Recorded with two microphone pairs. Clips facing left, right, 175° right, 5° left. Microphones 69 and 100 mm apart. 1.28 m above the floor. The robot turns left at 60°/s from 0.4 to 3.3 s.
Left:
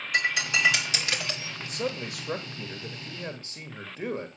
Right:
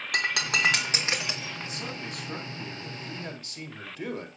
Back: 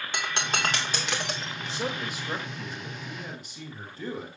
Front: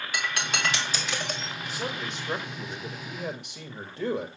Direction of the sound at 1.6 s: 135° left.